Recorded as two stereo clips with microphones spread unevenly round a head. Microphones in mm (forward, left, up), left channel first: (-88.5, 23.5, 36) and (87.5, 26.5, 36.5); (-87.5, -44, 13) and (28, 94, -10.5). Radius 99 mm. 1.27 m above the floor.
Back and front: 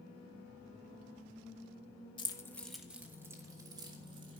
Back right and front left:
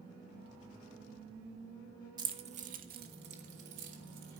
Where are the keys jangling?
120° left, 1.1 m; by 4.4 s 60° left, 3 m.